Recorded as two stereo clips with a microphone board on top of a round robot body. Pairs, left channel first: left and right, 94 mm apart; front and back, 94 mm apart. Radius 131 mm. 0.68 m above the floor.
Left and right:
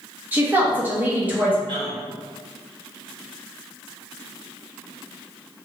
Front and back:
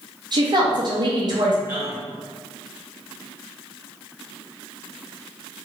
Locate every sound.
0.3 s a woman speaking: 155° right, 0.8 m
1.7 s a man speaking: 115° right, 1.4 m